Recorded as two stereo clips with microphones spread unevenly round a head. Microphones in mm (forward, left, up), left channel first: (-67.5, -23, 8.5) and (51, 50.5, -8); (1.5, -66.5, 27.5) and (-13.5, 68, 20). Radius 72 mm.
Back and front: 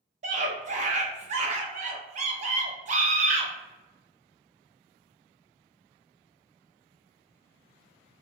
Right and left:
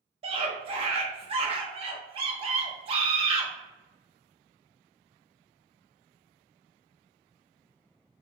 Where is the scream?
55° left, 0.8 m.